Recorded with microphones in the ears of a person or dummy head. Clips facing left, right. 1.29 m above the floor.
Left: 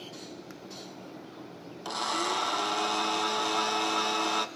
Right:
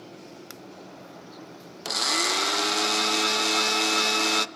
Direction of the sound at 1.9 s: 30° right (ahead or behind).